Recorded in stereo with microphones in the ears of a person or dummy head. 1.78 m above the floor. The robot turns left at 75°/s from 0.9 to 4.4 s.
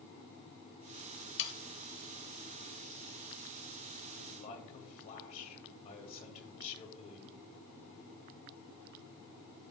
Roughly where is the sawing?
Left.